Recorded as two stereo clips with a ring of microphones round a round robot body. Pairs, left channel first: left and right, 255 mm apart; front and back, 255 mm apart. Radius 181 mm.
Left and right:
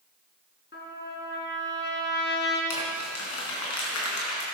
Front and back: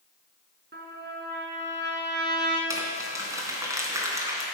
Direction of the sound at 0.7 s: 135° left.